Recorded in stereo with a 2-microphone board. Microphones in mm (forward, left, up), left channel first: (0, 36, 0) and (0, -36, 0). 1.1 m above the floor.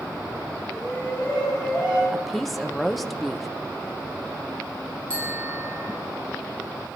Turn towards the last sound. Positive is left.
turn(degrees=20)  # may be behind; listen again after turning